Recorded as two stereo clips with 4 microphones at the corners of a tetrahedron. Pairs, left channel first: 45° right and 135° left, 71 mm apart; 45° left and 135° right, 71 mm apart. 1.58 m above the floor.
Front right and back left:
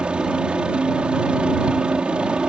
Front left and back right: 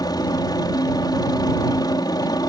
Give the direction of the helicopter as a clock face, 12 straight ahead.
10 o'clock.